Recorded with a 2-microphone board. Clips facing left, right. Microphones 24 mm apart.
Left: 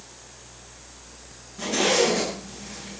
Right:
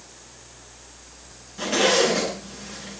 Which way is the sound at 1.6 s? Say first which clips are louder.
Right 2 dB; 45° right (ahead or behind).